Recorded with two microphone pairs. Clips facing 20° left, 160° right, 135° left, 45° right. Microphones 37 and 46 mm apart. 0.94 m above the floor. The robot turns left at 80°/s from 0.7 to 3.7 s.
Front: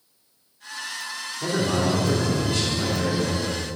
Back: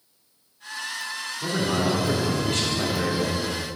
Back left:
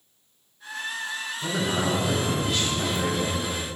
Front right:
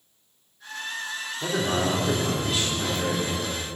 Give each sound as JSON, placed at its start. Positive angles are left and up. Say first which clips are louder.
{"t": 1.4, "sound": "a man speaking", "louder": "front 1 dB, front right 1 dB", "azimuth_deg": -35, "distance_m": 3.0}